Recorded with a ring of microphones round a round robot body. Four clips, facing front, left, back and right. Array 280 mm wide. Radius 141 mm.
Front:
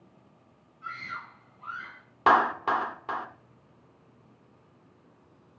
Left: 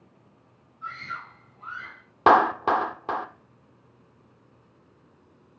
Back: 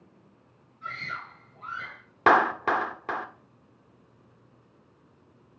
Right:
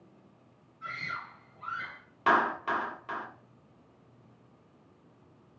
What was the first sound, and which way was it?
A scream, 150° right.